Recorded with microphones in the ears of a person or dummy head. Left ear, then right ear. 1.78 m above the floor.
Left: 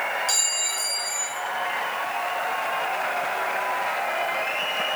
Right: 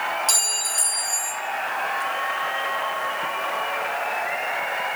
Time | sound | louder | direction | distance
0.3 | a clink | right 1 dB | 10° right (ahead or behind) | 1.0 m